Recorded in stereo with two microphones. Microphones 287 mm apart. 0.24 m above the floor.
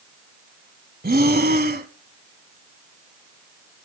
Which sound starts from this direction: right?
Breathing, at 1.0 s.